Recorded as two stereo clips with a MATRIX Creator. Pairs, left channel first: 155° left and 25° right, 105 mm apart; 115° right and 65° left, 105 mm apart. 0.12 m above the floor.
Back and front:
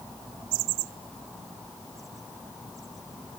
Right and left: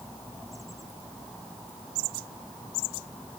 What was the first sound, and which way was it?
Only background noise.